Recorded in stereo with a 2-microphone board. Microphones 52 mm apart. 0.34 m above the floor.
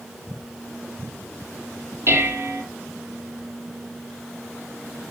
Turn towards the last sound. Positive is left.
turn(degrees=-50)  # may be behind; listen again after turning